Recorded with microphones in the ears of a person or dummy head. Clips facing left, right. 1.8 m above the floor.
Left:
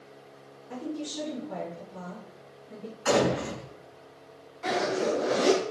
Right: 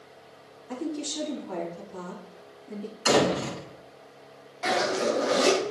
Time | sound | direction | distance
0.7 | a woman speaking | 80° right | 4.5 m
3.0 | a door slam | 50° right (ahead or behind) | 4 m
4.6 | a zipper | 65° right (ahead or behind) | 3.5 m